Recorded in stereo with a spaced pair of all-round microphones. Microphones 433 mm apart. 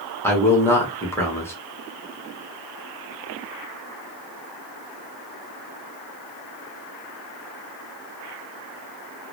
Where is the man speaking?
5° left (ahead or behind), 0.8 m.